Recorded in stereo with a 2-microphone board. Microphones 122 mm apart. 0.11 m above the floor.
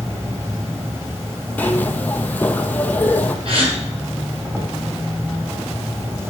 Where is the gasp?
50° right (ahead or behind), 2.5 m.